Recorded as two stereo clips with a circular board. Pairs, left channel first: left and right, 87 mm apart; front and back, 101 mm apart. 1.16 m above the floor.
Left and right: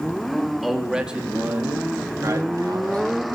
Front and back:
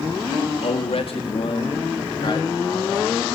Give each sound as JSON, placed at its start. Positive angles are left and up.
{"t": 0.6, "sound": "a man speaking", "azimuth_deg": 0, "distance_m": 3.0}